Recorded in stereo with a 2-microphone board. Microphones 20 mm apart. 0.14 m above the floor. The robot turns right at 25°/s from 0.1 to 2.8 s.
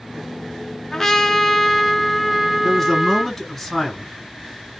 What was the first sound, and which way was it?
A trumpet, 150° left.